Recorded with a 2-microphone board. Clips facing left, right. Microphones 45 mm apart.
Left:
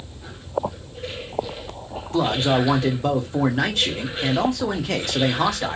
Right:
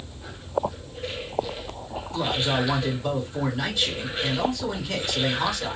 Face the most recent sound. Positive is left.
turn(degrees=60)  # may be behind; listen again after turning